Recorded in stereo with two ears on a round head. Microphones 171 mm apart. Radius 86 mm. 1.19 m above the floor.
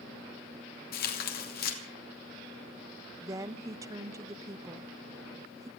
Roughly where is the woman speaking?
Centre.